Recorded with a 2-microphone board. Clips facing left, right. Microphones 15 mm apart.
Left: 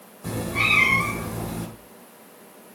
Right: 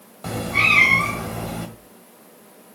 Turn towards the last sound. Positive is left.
turn(degrees=-75)  # may be behind; listen again after turning